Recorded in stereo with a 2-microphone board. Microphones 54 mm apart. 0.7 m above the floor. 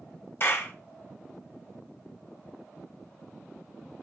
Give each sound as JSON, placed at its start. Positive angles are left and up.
{"t": 0.4, "sound": "a clap", "side_deg": 45, "distance_m": 1.2}